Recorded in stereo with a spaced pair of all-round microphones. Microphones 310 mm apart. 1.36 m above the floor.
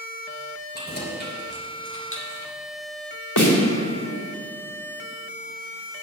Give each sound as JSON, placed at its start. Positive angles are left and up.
{"t": 0.7, "sound": "keys jangling", "side_deg": 30, "distance_m": 3.5}
{"t": 3.4, "sound": "a snare drum", "side_deg": 75, "distance_m": 2.5}